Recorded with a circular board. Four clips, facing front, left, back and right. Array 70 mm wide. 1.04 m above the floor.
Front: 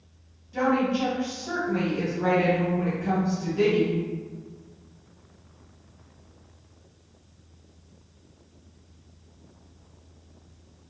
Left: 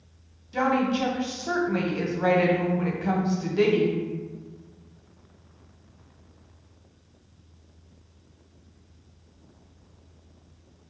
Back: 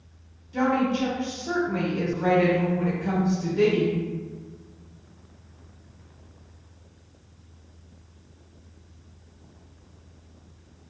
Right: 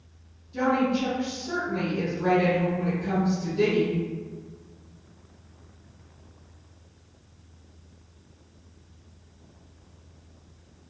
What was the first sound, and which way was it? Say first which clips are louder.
A woman speaking: even, even; 100° left.